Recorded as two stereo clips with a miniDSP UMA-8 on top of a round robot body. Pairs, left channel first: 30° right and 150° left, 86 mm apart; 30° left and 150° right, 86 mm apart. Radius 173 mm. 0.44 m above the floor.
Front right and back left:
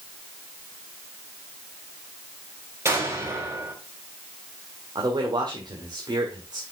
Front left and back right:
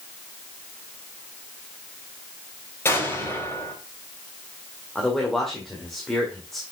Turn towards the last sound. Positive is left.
turn(degrees=115)